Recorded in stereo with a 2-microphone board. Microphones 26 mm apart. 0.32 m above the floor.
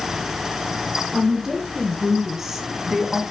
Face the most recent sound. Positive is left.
turn(degrees=-10)  # may be behind; listen again after turning